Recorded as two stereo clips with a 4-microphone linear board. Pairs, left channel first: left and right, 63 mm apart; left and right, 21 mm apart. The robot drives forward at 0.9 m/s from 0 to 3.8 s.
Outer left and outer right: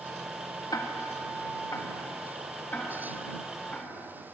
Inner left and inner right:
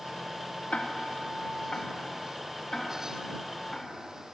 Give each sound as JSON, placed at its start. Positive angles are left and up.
{"t": 0.7, "sound": "ticking", "side_deg": 75, "distance_m": 1.1}